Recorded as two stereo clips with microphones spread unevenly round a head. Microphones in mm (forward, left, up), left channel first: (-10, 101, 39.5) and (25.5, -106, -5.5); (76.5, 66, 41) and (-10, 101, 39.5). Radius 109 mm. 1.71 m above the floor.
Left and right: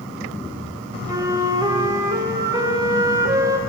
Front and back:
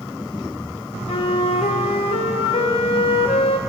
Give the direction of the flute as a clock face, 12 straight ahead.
12 o'clock.